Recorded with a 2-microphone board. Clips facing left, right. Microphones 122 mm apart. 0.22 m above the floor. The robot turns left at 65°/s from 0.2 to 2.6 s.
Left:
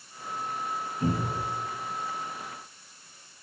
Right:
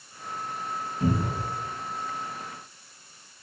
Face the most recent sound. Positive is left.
turn(degrees=-140)